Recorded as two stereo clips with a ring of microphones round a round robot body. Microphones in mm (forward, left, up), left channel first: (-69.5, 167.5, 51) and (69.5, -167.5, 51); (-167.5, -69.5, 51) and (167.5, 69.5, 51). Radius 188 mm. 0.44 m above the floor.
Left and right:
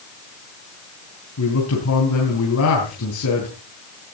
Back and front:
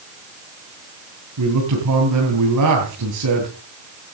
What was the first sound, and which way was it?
A man speaking, 65° left.